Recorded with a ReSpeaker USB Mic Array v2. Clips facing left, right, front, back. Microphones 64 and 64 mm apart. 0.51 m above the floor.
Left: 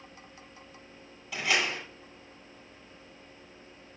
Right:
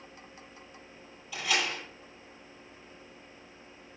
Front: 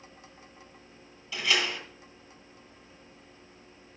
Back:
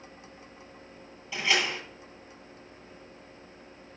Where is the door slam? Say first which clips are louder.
Left 2 dB, back 1 dB; 115° left, 8.5 m.